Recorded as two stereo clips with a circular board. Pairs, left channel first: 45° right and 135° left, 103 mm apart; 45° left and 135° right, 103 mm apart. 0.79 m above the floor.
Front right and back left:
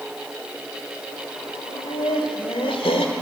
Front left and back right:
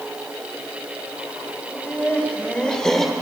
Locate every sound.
1.7 s laughter: 25° right, 3.5 m; by 3.1 s 45° right, 1.9 m